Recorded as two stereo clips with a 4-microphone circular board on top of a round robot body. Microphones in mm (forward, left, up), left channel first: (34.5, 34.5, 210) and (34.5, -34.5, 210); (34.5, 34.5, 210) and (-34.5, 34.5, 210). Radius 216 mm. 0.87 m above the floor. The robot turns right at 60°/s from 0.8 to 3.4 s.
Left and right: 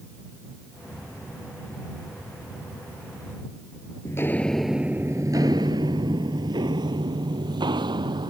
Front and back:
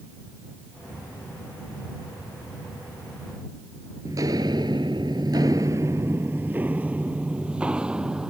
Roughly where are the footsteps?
Behind left.